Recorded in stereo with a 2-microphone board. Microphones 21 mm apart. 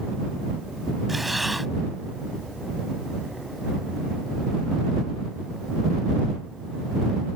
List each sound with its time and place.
1.1 s breathing: 5° right (ahead or behind)